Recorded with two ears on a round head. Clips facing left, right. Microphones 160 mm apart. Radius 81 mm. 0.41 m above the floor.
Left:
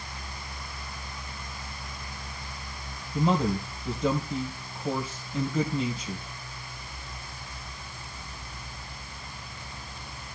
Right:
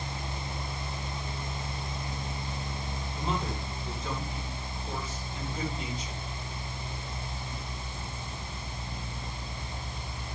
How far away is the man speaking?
About 2.5 m.